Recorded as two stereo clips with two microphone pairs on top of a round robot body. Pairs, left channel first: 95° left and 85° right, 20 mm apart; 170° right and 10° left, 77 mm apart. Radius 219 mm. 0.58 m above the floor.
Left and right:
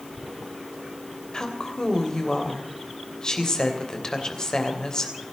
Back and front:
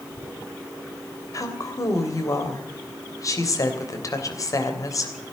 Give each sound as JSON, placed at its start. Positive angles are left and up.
{"t": 1.3, "sound": "a woman speaking", "azimuth_deg": 145, "distance_m": 3.0}